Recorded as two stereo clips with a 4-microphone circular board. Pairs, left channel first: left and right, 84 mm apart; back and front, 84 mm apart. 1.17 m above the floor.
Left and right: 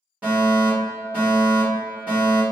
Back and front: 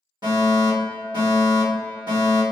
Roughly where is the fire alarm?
Ahead.